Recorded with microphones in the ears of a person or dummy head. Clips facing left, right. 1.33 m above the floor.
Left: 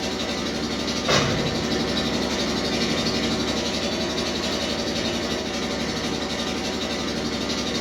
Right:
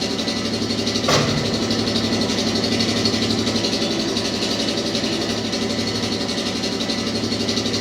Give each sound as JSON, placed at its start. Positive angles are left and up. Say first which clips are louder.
{"t": 0.0, "sound": "an engine running", "louder": "right 4 dB", "side_deg": -60, "distance_m": 0.9}
{"t": 1.1, "sound": "an explosion", "louder": "right 2 dB", "side_deg": -55, "distance_m": 1.1}